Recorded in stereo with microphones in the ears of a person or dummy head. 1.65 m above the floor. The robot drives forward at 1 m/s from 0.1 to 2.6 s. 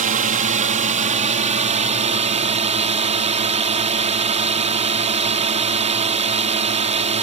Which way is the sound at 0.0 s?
40° right (ahead or behind).